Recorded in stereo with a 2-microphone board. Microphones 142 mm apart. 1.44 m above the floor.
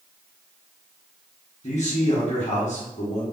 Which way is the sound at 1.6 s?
55° left (ahead or behind).